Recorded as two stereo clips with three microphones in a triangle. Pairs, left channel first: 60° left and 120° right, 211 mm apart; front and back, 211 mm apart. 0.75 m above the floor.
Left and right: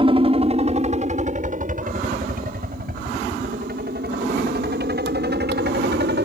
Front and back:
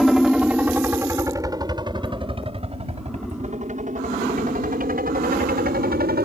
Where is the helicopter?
90° right; by 6.3 s 145° right.